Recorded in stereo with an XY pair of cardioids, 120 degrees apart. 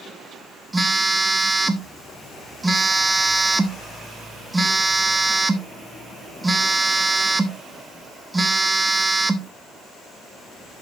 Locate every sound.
0.7 s a phone buzzing: 15° right, 1.1 m